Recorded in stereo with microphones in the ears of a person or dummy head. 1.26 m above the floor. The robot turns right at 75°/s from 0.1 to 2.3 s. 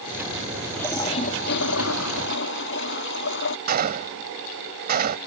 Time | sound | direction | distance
0.7 | a toilet flushing | straight ahead | ?
3.7 | a gunshot | 45° right (ahead or behind) | ?